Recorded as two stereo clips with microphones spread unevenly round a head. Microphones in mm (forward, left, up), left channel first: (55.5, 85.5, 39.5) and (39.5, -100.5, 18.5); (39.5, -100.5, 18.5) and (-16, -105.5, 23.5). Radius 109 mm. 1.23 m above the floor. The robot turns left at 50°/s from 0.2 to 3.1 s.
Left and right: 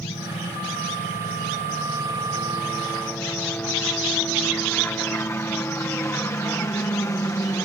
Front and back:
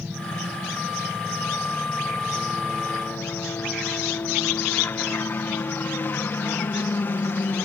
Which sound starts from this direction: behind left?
A helicopter, at 0.0 s.